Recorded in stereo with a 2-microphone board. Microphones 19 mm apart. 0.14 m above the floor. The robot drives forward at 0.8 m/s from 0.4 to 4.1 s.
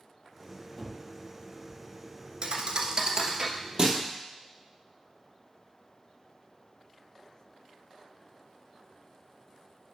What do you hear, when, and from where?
0.8 s a gunshot: 10° right (ahead or behind), 0.7 m; by 1.1 s 15° right (ahead or behind), 0.5 m
2.4 s a thud: 55° right (ahead or behind), 0.8 m; by 4.0 s 25° right (ahead or behind), 1.5 m